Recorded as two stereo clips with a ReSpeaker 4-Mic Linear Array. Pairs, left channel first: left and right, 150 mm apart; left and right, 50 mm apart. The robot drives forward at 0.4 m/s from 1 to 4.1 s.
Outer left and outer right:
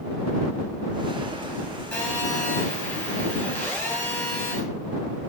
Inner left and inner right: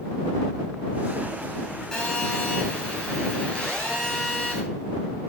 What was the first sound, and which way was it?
A phone buzzing, 10° left (ahead or behind).